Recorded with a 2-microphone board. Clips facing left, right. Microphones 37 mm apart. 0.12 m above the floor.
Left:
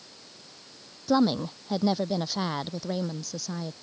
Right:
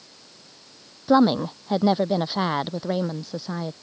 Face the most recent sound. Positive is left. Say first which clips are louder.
# right 6 dB
turn(degrees=-25)  # may be behind; listen again after turning